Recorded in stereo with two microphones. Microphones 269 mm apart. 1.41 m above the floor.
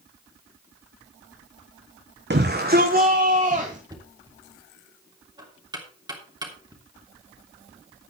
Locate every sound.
2.3 s a shout: 40° right (ahead or behind), 1.0 m; by 3.8 s 30° right (ahead or behind), 1.7 m
3.9 s knocking: 15° right (ahead or behind), 3 m